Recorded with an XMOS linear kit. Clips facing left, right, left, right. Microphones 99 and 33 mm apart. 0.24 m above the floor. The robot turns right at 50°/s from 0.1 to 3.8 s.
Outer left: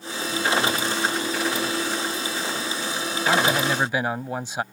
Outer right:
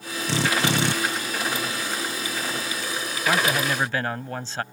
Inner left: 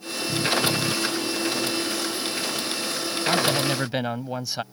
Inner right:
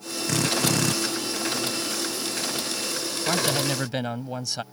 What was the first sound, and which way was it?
A drill, 100° right.